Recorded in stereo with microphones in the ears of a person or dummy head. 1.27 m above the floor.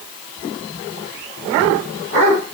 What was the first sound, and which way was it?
Only background noise.